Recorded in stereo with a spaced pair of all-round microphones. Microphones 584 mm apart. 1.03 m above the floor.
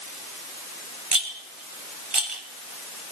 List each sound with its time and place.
1.1 s a rattle: 60° right (ahead or behind), 2 m